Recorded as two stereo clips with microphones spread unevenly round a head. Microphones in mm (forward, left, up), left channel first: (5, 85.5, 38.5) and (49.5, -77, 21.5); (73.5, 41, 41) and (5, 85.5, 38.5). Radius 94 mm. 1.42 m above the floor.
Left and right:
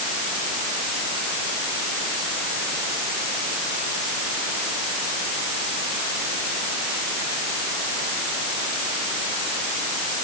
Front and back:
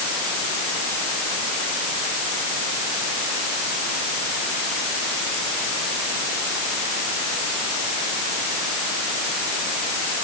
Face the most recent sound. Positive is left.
No sound to turn to.